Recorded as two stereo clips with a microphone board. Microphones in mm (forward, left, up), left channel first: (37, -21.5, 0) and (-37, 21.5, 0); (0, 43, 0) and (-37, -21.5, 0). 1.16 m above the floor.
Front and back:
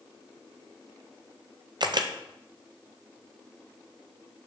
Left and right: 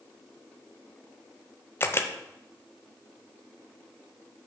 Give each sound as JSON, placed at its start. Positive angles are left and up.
{"t": 1.8, "sound": "a camera shutter", "azimuth_deg": 120, "distance_m": 0.5}